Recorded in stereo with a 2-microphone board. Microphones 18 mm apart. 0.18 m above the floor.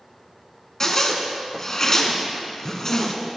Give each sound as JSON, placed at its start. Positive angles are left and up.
{"t": 0.8, "sound": "a zipper", "side_deg": 30, "distance_m": 1.2}